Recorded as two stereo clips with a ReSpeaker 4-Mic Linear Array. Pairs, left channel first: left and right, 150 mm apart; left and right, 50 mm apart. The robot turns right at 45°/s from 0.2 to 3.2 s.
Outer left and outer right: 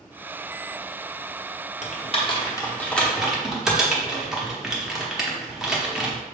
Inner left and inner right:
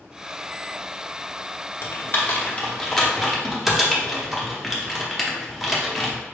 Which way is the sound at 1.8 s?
50° left (ahead or behind).